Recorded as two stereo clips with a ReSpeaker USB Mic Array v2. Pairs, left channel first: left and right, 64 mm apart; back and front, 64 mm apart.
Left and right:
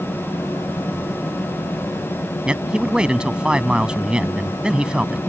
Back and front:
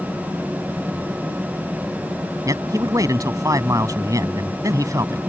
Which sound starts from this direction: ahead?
A man speaking, at 2.5 s.